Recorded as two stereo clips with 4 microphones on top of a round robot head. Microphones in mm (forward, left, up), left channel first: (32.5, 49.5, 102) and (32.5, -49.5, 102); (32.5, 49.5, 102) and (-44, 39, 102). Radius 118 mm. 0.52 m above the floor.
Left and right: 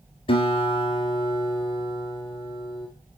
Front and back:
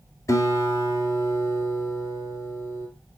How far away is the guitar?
About 2 m.